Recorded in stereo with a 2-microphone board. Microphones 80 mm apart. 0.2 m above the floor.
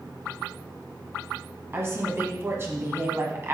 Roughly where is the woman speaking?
Right.